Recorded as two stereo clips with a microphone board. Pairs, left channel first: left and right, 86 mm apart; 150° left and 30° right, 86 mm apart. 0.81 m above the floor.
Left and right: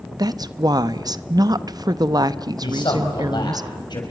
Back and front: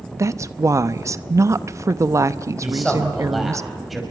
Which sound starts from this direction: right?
A woman speaking, at 0.2 s.